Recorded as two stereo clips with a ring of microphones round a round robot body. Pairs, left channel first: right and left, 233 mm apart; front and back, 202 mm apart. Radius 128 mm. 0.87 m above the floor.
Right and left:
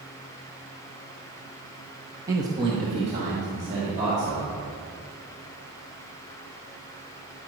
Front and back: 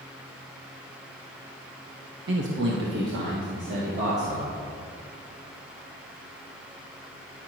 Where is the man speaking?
165° left, 0.9 m; by 4.5 s 150° left, 2 m.